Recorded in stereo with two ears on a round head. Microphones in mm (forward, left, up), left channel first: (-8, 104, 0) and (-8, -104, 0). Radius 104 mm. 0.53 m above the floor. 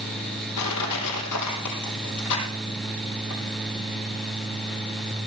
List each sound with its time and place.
0.6 s crushing: 80° left, 4 m